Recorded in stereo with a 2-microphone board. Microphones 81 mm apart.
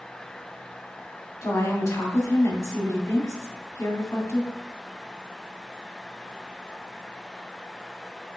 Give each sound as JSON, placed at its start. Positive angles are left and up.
{"t": 1.4, "sound": "a woman speaking", "side_deg": 45, "distance_m": 1.9}